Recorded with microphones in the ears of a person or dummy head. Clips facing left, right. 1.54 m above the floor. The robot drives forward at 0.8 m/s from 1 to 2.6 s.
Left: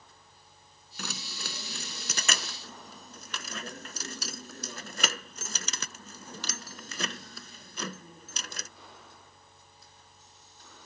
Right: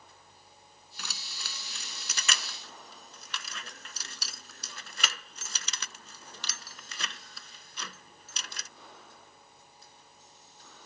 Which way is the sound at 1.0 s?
40° left (ahead or behind).